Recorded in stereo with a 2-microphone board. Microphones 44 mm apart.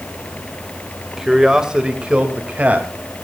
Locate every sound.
1.2 s a man speaking: 10° right (ahead or behind), 2.5 m; by 2.9 s 35° right (ahead or behind), 3 m